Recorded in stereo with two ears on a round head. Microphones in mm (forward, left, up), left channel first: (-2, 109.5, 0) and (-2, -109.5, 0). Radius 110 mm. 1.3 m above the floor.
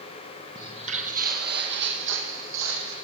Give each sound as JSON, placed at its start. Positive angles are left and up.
{"t": 0.6, "sound": "footsteps", "side_deg": -15, "distance_m": 1.7}